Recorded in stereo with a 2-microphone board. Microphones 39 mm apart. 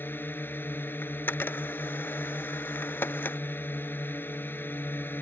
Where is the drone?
70° left (ahead or behind).